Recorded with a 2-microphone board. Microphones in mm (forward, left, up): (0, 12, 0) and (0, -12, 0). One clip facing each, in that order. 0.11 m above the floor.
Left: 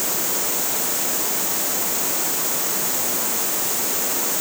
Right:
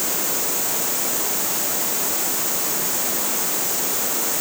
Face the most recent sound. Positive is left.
No sound to turn to.